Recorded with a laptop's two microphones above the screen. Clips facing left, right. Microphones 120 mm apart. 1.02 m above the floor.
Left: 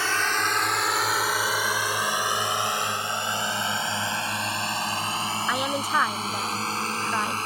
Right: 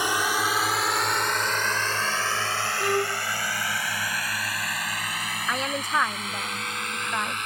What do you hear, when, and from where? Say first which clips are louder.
0.0 s a drone: right 1 dB; 15° right (ahead or behind); by 7.5 s 35° left (ahead or behind)
2.8 s a violin: right 4 dB; 70° right (ahead or behind)
5.5 s a woman speaking: even; 10° left (ahead or behind)